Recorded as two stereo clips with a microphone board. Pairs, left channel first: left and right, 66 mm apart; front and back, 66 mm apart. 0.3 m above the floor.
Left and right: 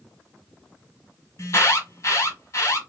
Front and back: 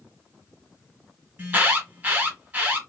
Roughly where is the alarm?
Behind left.